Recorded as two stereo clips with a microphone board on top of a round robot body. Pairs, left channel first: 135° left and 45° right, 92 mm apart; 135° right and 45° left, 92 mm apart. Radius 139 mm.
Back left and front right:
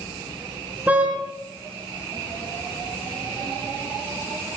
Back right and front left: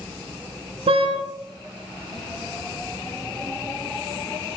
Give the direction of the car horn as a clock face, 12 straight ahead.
11 o'clock.